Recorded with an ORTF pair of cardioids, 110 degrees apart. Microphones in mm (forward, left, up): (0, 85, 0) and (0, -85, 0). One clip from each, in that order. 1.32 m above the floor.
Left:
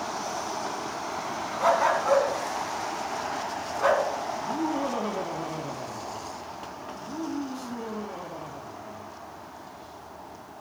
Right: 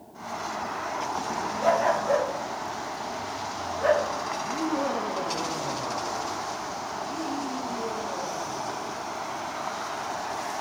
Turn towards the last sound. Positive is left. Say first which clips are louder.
# right 1 dB
turn(degrees=15)